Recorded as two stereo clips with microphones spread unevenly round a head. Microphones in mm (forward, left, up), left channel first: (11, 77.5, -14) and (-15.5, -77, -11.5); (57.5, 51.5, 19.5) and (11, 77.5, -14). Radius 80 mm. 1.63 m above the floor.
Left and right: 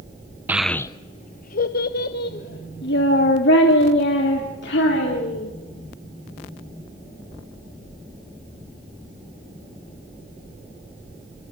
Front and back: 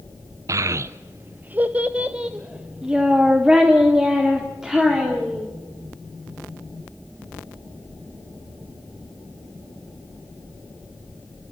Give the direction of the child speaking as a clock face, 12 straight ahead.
5 o'clock.